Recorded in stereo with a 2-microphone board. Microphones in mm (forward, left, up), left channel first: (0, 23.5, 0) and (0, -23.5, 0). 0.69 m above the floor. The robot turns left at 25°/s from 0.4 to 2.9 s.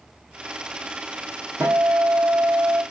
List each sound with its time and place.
1.6 s a guitar: 85° right, 0.6 m; by 2.8 s 115° right, 0.6 m